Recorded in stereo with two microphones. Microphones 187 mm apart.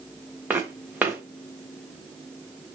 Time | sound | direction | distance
0.5 | footsteps | 10° right (ahead or behind) | 0.9 m